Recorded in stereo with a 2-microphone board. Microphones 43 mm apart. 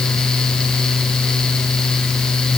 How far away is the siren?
I don't hear a siren.